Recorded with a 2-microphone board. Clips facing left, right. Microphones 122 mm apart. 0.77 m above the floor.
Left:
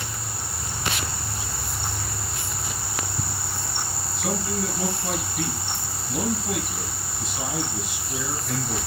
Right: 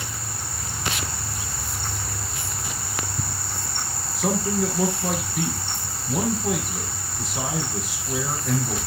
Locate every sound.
4.2 s a man speaking: 75° right (ahead or behind), 5.5 m